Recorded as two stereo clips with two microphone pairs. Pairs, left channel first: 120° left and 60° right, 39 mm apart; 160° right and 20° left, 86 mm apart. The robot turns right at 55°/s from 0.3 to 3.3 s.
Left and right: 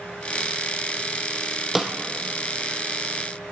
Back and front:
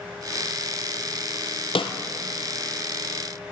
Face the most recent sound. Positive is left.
turn(degrees=-65)